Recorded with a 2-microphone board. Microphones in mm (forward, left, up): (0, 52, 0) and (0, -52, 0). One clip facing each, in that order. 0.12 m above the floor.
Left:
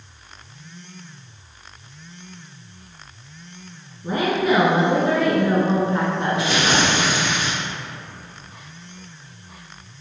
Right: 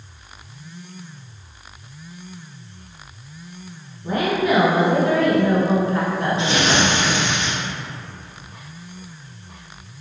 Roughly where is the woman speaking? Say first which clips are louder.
Even; left.